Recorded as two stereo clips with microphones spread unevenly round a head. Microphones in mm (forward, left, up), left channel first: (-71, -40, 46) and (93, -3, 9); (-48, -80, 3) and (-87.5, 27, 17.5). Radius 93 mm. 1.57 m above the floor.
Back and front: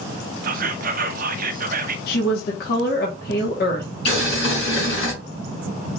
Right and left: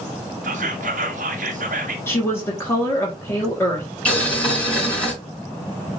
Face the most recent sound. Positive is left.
turn(degrees=-150)